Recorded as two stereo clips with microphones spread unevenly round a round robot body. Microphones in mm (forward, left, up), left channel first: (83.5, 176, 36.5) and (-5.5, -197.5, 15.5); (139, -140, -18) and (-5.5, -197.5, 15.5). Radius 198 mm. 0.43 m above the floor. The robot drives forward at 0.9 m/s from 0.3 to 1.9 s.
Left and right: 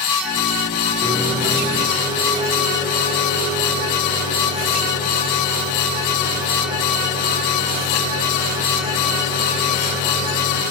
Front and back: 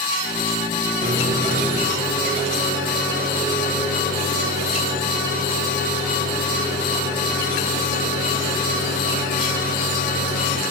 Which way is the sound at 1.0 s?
170° right.